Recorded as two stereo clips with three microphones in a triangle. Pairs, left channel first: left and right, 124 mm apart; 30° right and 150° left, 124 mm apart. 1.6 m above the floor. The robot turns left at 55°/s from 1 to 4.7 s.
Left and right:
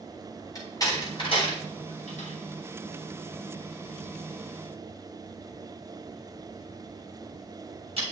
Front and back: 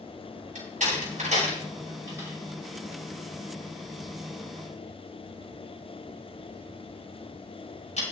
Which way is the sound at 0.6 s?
150° left.